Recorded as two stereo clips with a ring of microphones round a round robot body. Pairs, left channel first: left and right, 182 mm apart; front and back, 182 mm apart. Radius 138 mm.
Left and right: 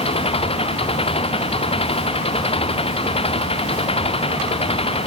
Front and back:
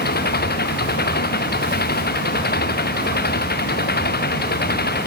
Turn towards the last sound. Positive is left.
turn(degrees=30)